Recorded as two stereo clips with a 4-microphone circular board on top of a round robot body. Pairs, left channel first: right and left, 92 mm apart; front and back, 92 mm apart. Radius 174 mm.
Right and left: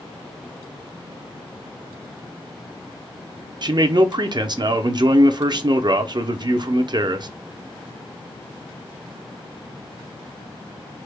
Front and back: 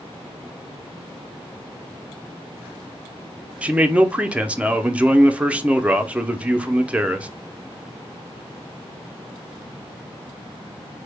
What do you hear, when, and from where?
3.6 s a man speaking: 105° left, 0.7 m